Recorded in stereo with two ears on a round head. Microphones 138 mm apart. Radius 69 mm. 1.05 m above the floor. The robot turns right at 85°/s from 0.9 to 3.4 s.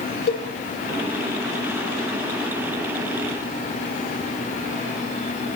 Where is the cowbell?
65° left (ahead or behind), 0.6 m.